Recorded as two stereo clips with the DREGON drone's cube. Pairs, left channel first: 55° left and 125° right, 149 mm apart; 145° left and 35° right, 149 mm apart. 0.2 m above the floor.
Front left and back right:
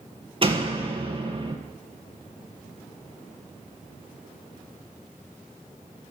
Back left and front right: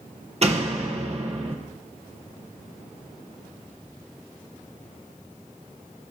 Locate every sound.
0.4 s a door slam: 75° right, 3 m